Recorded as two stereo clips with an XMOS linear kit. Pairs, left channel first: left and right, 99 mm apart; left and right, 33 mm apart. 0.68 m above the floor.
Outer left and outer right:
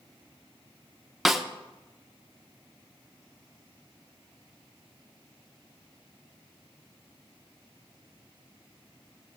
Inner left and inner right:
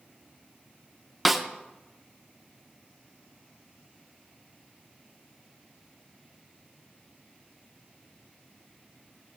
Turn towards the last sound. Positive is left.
turn(degrees=0)  # may be behind; listen again after turning